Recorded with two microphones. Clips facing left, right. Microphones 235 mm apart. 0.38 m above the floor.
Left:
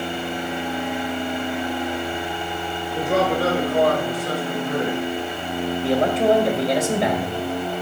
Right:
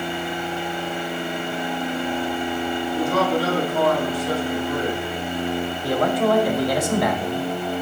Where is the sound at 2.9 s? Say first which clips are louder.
Left 1 dB; 65° left (ahead or behind), 5 m; by 5.0 s 75° left (ahead or behind), 4 m.